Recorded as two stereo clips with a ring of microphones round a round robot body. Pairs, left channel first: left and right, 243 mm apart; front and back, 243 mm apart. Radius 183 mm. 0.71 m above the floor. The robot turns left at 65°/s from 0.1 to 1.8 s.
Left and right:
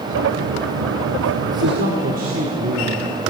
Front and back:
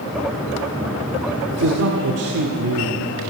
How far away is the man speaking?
About 1.9 m.